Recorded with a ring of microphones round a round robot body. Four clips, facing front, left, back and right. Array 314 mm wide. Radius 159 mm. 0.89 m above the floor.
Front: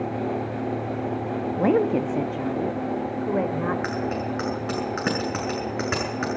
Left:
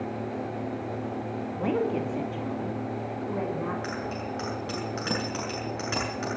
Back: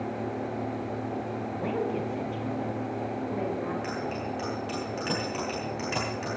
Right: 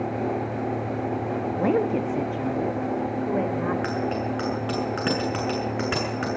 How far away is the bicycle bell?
About 8 m.